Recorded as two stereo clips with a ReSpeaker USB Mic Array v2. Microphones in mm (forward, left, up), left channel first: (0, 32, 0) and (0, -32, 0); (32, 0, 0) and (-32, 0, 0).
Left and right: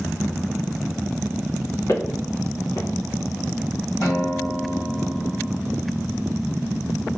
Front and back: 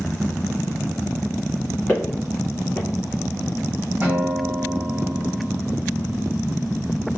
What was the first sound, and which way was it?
Footsteps, 65° left.